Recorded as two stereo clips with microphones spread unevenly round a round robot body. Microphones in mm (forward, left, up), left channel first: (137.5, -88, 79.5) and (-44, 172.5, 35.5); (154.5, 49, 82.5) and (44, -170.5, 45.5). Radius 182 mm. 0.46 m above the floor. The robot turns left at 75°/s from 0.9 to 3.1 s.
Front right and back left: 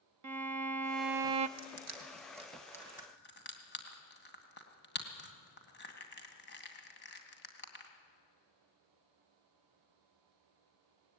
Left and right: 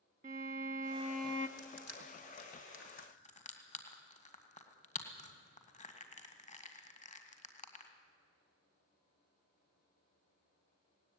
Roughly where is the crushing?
Behind left.